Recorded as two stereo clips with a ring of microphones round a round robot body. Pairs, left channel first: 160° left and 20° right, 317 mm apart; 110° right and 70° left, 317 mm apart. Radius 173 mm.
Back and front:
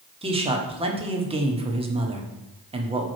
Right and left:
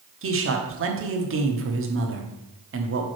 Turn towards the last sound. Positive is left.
turn(degrees=45)